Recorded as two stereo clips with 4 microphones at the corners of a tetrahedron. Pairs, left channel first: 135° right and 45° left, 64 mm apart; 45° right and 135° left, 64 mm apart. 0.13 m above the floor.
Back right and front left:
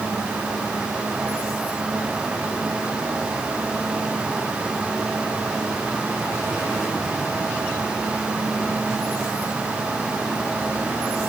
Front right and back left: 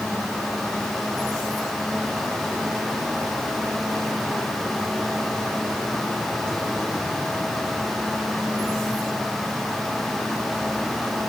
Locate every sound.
Only background noise.